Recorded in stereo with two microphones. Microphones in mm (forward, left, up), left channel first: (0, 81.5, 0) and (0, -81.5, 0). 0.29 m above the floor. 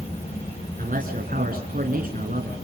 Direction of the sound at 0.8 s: 60° right (ahead or behind).